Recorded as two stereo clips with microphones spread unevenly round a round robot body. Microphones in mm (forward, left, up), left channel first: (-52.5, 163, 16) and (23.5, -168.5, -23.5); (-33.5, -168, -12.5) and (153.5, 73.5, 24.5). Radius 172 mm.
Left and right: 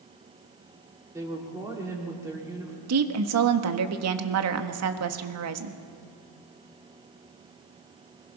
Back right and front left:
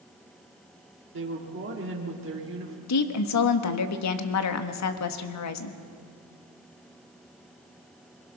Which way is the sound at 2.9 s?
110° right.